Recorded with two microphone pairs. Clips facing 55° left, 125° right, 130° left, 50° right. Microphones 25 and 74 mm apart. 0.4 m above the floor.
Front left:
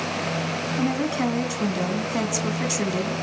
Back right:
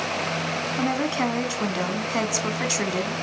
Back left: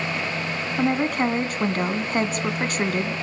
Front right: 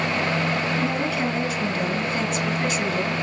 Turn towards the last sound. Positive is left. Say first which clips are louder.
# even, back left 2 dB
turn(degrees=165)